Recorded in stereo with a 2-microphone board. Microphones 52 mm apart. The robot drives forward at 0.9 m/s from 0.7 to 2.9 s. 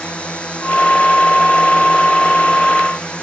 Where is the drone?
20° left (ahead or behind).